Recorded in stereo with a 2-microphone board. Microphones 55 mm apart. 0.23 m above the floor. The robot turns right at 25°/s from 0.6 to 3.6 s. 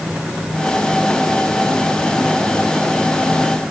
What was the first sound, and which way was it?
Only background noise.